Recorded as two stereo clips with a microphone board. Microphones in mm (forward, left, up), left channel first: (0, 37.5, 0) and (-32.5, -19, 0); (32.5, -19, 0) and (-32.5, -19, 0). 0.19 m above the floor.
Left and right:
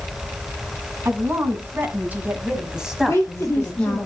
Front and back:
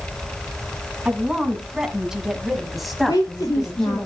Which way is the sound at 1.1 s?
110° right.